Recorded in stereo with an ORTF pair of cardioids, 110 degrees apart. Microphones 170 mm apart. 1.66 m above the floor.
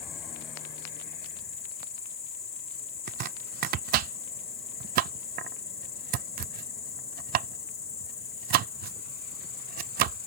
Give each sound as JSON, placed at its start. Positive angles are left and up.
{"t": 0.0, "sound": "an insect", "azimuth_deg": 35}
{"t": 3.1, "sound": "chopping", "azimuth_deg": -60}